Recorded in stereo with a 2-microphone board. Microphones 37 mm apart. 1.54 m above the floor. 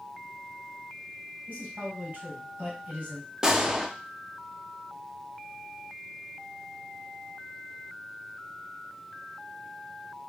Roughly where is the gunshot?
Centre.